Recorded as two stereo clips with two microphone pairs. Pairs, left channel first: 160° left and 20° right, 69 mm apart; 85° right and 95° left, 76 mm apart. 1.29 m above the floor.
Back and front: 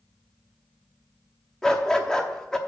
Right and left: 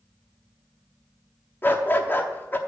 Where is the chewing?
I don't hear chewing.